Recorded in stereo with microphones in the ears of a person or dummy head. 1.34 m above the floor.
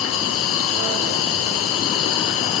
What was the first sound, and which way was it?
An insect, 80° left.